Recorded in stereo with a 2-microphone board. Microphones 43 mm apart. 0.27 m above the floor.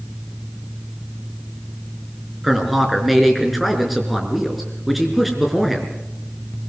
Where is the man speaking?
5° right (ahead or behind), 4 m.